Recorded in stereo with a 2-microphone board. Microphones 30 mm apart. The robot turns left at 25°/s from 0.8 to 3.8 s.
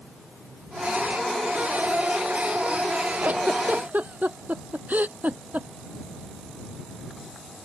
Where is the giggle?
60° right (ahead or behind); by 5.7 s 75° right (ahead or behind).